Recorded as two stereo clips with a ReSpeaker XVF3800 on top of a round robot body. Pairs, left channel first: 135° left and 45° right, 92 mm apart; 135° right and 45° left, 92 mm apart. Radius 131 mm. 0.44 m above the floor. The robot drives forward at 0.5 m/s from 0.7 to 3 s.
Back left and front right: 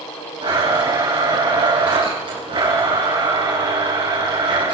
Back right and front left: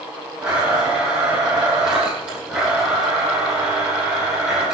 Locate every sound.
0.4 s a blender: 35° right, 9.5 m; by 4.7 s 40° right, 8.5 m